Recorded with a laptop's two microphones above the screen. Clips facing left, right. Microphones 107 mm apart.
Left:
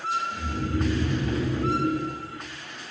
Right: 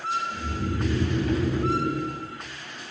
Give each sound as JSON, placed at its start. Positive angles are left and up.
{"t": 0.3, "sound": "snoring", "side_deg": -40, "distance_m": 2.0}